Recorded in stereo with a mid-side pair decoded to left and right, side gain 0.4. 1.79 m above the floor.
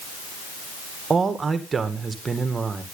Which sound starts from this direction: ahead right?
A man speaking, at 1.1 s.